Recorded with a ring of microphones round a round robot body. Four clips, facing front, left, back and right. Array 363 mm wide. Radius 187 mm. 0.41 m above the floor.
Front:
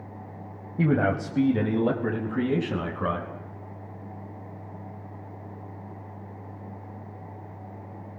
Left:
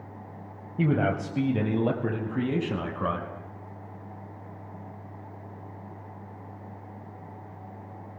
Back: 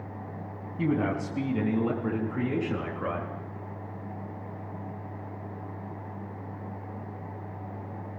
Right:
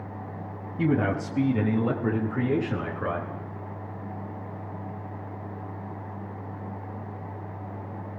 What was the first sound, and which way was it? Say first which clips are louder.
A man speaking: right 1 dB, front 4 dB; 30° left.